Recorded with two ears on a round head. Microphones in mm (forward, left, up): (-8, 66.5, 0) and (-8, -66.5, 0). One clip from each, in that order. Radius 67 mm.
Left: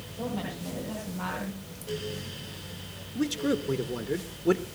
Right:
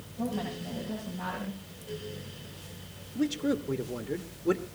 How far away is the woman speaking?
About 9.5 m.